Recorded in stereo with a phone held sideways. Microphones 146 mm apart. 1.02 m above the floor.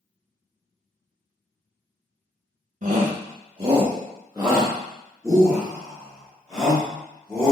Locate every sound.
2.8 s a shout: 55° right (ahead or behind), 0.8 m; by 7.5 s 20° left (ahead or behind), 2.5 m